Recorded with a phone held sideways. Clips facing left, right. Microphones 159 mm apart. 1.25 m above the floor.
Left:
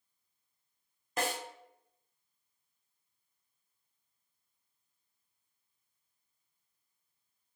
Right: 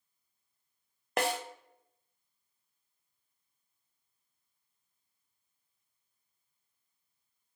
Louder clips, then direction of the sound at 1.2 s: Right 4 dB; 70° right (ahead or behind).